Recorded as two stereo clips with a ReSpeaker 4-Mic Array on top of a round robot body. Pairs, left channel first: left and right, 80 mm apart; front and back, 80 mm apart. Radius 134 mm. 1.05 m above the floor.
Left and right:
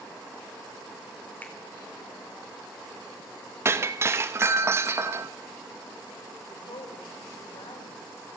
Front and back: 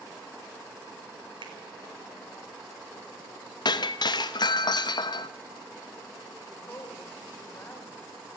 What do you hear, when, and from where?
1.4 s a finger snap: 160° left, 3 m
3.6 s breaking glass: 30° right, 0.8 m
6.5 s a woman speaking: 70° left, 3.5 m